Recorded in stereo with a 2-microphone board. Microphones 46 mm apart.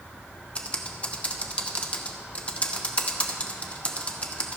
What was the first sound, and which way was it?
Typing on a keyboard, 30° left (ahead or behind).